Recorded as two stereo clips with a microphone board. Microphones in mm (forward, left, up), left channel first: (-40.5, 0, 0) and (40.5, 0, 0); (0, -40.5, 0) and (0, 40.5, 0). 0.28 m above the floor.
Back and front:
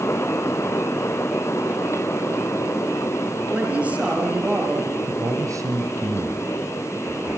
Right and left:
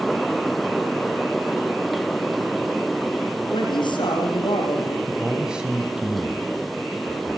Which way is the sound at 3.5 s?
75° right.